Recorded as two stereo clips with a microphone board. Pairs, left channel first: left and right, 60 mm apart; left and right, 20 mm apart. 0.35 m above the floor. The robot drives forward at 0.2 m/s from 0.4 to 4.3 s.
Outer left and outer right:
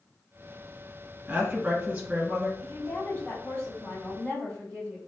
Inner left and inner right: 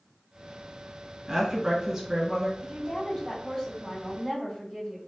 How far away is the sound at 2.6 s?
About 1.8 m.